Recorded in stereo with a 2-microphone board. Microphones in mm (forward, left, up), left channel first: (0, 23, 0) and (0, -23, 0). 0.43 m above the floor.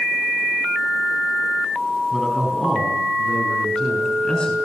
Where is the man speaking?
5° left (ahead or behind), 4.5 m; by 4.6 s 20° left (ahead or behind), 5.5 m.